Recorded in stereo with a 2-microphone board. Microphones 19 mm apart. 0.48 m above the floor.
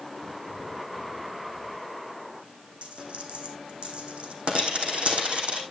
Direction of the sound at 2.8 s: 85° right.